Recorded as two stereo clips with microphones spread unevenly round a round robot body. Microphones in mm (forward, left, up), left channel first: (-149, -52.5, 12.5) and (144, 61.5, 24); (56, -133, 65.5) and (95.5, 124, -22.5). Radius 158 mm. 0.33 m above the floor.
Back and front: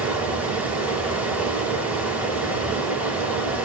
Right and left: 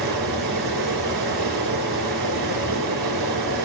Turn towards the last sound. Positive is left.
turn(degrees=105)